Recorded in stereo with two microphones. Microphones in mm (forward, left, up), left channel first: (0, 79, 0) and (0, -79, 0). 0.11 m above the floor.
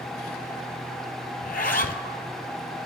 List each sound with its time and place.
1.4 s a zipper: 60° left (ahead or behind), 0.6 m